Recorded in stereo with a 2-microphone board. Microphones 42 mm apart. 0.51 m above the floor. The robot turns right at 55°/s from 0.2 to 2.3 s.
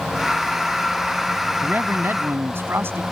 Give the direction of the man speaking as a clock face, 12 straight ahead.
4 o'clock.